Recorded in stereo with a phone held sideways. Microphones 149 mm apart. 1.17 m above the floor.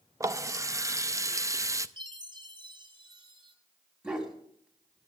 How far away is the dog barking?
About 2.5 m.